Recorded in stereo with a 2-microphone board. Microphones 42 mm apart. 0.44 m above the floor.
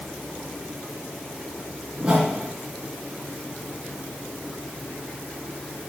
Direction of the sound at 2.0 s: 20° right (ahead or behind).